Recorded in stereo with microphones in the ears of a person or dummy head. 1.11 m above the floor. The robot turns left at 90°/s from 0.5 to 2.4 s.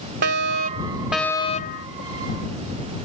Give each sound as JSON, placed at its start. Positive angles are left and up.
{"t": 0.2, "sound": "a fire alarm", "azimuth_deg": -120}